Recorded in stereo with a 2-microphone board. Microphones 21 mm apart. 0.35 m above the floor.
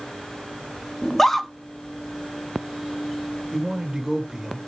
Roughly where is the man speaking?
Centre.